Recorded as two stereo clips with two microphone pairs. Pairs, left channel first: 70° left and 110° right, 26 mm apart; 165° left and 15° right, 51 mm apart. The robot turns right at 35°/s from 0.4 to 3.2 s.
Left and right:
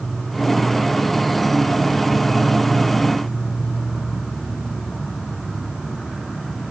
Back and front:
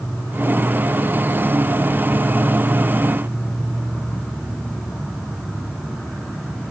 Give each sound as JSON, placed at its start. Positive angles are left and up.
{"t": 0.0, "sound": "an insect", "azimuth_deg": 170, "distance_m": 8.5}